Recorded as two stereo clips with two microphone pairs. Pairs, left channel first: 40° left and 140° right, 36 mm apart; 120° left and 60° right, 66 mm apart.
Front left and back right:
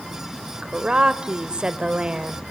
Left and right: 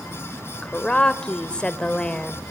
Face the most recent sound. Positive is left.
turn(degrees=-175)